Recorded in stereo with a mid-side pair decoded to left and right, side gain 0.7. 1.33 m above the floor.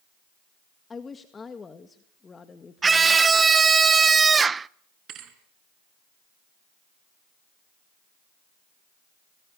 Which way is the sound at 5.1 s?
45° right.